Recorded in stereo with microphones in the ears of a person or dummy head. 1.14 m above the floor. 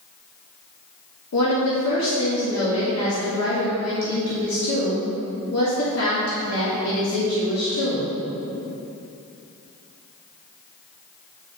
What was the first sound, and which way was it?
A woman speaking, 80° left.